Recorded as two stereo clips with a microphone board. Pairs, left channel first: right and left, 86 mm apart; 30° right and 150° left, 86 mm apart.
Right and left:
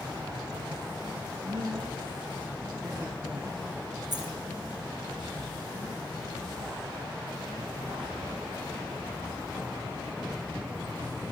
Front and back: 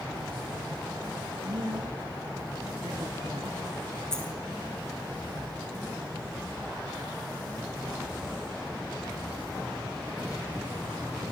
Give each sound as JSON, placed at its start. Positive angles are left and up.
{"t": 1.4, "sound": "a woman speaking", "azimuth_deg": 125, "distance_m": 2.5}
{"t": 4.1, "sound": "a dropped coin", "azimuth_deg": 50, "distance_m": 3.0}